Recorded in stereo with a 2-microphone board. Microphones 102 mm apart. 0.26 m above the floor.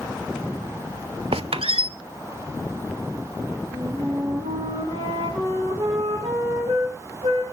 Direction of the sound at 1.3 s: 70° right (ahead or behind).